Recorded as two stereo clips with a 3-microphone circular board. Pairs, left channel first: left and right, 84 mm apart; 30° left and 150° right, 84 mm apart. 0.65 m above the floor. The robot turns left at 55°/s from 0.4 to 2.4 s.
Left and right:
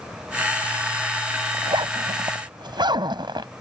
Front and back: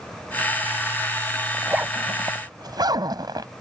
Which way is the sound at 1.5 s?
70° right.